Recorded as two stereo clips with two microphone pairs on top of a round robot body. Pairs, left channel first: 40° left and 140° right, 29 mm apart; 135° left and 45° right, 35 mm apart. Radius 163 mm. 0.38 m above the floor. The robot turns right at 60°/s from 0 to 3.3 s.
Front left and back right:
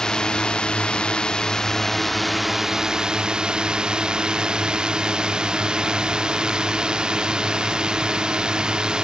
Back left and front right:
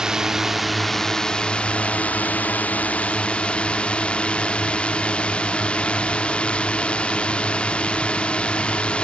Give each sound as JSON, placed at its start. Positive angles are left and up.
{"t": 0.0, "sound": "a drone", "azimuth_deg": -15}